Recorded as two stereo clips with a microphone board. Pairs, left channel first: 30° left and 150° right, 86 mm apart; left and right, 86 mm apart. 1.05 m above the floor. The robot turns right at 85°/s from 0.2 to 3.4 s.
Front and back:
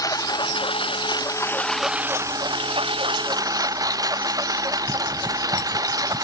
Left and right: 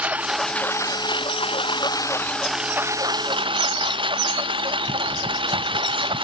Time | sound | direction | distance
0.0 | a lawn mower | 15° right | ?